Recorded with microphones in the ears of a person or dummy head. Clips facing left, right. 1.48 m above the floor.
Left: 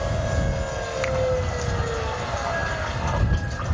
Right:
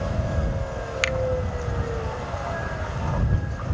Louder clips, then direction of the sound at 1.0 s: Left 2 dB; 40° right (ahead or behind).